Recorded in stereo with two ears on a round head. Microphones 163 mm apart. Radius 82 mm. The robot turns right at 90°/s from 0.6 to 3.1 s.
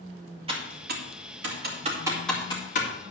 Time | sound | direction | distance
0.5 | typing on a keyboard | 30° right (ahead or behind) | 2.5 m